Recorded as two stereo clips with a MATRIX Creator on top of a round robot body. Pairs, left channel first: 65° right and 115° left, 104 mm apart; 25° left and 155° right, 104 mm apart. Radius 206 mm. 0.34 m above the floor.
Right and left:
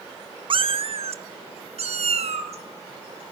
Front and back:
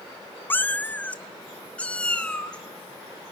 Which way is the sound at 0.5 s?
90° left.